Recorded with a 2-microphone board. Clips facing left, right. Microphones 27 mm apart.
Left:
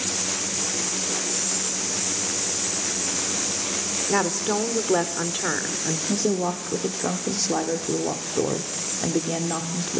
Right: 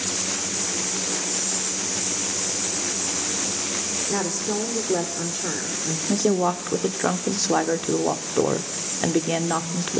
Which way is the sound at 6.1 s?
45° right (ahead or behind).